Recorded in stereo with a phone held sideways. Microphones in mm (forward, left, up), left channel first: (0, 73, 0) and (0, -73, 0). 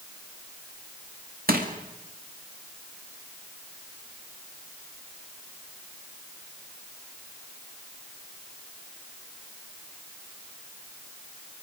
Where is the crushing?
85° right, 2 m.